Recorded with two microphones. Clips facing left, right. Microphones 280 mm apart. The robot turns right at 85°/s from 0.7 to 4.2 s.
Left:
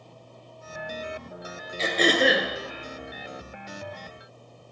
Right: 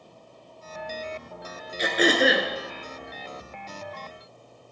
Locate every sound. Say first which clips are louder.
1.8 s throat clearing: right 1 dB; 20° right (ahead or behind), 1.6 m; by 2.5 s 5° left (ahead or behind), 1.6 m